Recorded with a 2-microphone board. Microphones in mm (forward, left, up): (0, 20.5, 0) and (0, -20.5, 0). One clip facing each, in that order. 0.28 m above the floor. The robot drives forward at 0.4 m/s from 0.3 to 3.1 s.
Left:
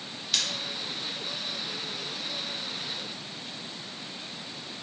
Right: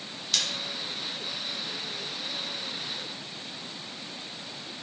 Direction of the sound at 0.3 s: 5° left (ahead or behind).